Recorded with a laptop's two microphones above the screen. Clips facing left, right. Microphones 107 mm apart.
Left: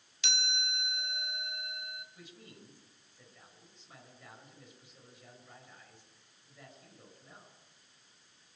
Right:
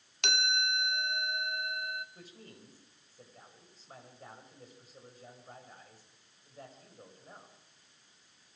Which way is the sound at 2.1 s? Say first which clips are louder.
Right 1 dB; 40° right (ahead or behind).